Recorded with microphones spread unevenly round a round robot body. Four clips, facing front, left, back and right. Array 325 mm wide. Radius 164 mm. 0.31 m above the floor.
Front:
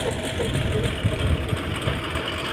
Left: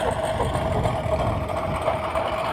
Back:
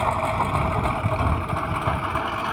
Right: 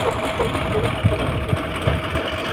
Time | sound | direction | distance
0.0 | a lawn mower | 80° right | ?